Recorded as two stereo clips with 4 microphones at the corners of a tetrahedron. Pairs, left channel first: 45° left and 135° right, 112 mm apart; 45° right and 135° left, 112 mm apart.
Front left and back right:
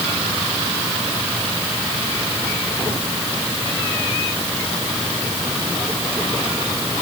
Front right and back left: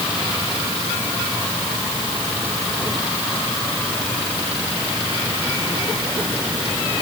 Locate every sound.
Only background noise.